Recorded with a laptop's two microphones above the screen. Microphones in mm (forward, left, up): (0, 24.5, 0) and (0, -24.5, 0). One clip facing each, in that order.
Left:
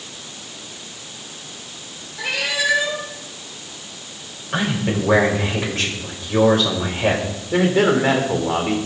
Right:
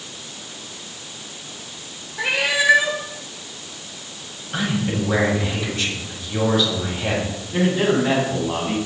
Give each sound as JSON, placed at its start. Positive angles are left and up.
{"t": 2.2, "sound": "a cat meowing", "side_deg": -20, "distance_m": 1.3}
{"t": 4.5, "sound": "a man speaking", "side_deg": 55, "distance_m": 6.0}
{"t": 7.5, "sound": "a man speaking", "side_deg": 80, "distance_m": 3.5}